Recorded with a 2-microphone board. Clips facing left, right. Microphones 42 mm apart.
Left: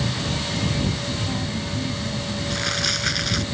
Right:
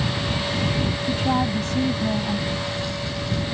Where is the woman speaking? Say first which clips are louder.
Right 6 dB; 70° right (ahead or behind); by 2.4 s 75° right (ahead or behind).